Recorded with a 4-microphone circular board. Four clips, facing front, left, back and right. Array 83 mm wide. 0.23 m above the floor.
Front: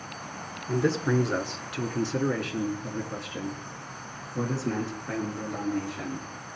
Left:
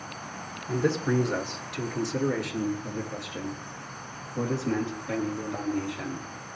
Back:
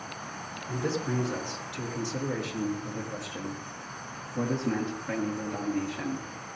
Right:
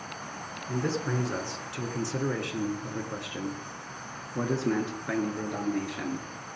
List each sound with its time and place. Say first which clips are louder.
0.7 s a man speaking: left 4 dB, front 6 dB; straight ahead, 3 m; by 6.3 s 95° right, 4 m